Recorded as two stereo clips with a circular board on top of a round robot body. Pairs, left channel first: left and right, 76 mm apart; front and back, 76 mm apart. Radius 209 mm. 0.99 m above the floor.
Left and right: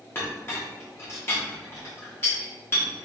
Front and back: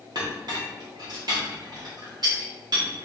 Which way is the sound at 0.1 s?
150° left.